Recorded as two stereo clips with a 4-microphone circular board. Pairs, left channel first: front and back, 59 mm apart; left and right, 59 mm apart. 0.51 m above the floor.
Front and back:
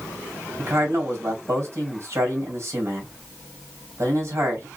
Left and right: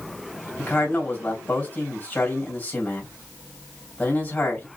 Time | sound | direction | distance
0.6 | a man speaking | 150° left | 2.5 m